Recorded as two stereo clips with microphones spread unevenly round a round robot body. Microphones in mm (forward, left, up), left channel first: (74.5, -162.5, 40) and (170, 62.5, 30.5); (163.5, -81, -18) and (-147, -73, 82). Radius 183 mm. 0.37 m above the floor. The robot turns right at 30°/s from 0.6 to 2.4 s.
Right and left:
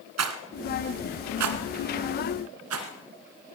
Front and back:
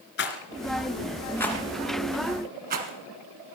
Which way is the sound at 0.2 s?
60° left.